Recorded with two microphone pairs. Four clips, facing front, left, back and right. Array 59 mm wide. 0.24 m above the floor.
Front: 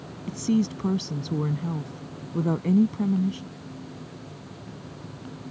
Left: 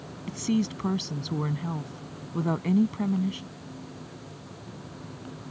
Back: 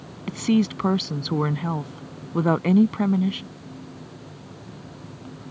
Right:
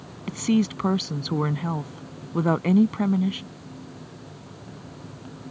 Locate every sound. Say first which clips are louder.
0.3 s a woman speaking: right 5 dB, back 3 dB; 150° right